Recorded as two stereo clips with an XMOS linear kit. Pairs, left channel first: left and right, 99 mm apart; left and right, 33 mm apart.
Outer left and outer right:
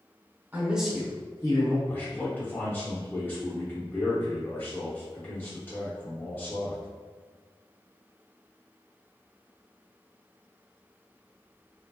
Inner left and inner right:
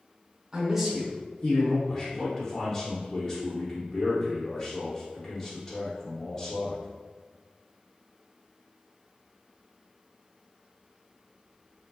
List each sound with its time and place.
0.5 s a man speaking: 20° right (ahead or behind), 0.9 m; by 1.8 s 45° left (ahead or behind), 1.1 m
1.9 s a man speaking: 20° left (ahead or behind), 0.7 m